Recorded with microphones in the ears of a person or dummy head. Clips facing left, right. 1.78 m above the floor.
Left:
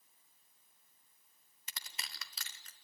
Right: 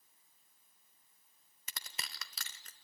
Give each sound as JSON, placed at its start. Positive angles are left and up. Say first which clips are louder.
{"t": 1.7, "sound": "crushing", "louder": "right 2 dB", "side_deg": -50, "distance_m": 0.7}